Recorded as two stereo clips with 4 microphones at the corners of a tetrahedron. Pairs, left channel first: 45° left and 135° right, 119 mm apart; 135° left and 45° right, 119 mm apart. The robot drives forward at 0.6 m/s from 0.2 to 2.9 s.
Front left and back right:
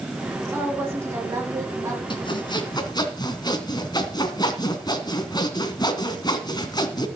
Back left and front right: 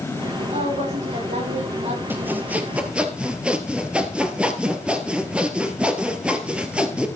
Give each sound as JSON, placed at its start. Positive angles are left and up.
{"t": 0.5, "sound": "a woman speaking", "azimuth_deg": -65, "distance_m": 8.0}
{"t": 2.1, "sound": "sawing", "azimuth_deg": 20, "distance_m": 2.5}